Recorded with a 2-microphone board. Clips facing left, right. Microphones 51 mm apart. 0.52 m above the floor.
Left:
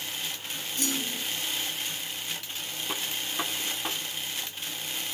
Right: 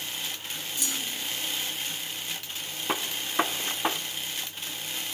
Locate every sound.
0.8 s a clunk: 50° left (ahead or behind), 2.5 m
2.9 s a gunshot: 40° right (ahead or behind), 0.7 m